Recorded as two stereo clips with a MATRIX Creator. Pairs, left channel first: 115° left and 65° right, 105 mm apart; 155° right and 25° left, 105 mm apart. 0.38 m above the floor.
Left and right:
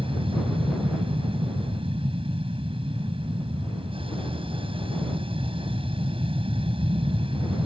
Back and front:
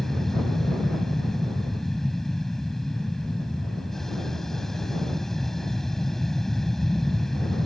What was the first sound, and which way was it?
An aircraft, 70° right.